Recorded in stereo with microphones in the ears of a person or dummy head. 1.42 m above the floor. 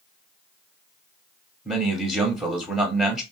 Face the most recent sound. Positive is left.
turn(degrees=-5)  # may be behind; listen again after turning